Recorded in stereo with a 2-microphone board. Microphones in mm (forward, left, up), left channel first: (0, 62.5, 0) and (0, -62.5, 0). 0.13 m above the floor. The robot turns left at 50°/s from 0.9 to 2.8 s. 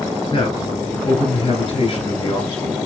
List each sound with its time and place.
0.3 s a man speaking: 125° left, 2 m; by 2.8 s 30° left, 2 m